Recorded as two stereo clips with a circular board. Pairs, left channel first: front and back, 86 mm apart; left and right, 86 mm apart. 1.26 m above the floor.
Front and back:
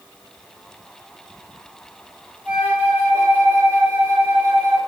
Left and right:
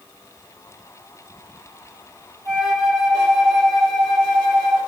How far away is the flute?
About 0.8 m.